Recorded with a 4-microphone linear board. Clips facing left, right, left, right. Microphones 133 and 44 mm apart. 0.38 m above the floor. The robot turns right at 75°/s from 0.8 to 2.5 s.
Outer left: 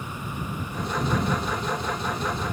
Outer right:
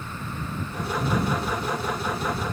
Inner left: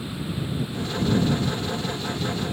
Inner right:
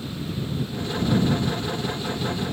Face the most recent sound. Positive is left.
No sound to turn to.